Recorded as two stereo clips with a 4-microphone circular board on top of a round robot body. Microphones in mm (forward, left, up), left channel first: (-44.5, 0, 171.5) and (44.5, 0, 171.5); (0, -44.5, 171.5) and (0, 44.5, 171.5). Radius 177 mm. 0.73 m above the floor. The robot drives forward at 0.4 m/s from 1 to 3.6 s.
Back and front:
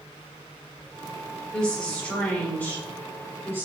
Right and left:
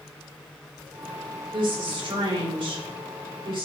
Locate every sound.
1.5 s a woman speaking: 100° left, 3 m; by 3.7 s 115° left, 3.5 m